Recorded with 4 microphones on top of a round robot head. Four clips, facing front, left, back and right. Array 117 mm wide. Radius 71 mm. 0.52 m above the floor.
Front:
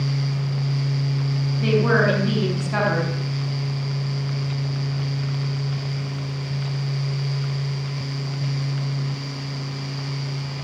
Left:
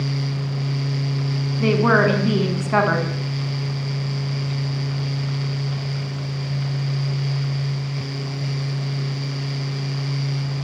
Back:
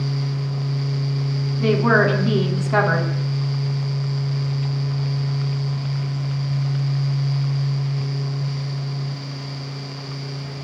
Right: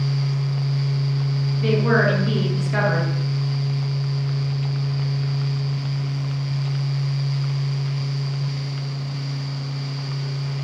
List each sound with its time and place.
1.6 s a woman speaking: 120° left, 6 m